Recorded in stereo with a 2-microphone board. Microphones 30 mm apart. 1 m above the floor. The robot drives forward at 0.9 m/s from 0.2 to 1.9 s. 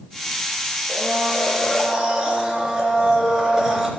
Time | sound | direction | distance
0.9 | a blender | 10° right (ahead or behind) | 4.5 m